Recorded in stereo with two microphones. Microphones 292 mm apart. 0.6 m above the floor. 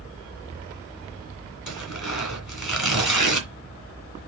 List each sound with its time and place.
1.7 s tearing paper: 80° left, 2 m